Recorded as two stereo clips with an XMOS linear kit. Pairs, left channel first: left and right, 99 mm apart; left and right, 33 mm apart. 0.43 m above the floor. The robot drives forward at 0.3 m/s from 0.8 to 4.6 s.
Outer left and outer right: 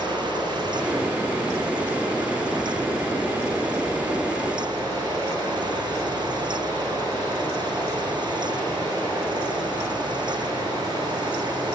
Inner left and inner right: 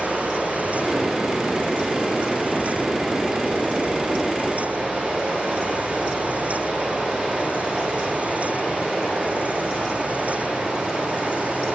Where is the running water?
50° right (ahead or behind), 3 m; by 11.8 s 35° right (ahead or behind), 4 m.